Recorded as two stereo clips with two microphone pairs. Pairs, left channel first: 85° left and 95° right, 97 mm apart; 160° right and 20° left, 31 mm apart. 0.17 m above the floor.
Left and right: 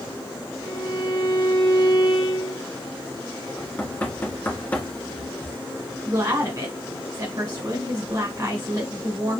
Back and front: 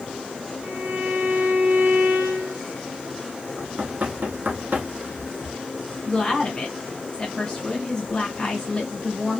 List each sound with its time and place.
0.6 s a violin: 55° left, 2.5 m
3.6 s knocking: 15° left, 1.9 m
6.1 s a woman speaking: 95° right, 1.8 m